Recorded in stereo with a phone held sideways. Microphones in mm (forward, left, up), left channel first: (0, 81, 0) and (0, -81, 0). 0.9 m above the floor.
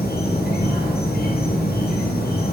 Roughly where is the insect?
Left.